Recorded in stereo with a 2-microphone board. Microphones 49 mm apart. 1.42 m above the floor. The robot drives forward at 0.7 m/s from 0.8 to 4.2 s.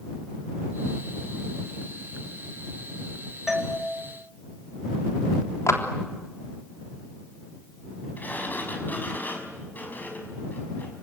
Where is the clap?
75° left (ahead or behind), 3.5 m.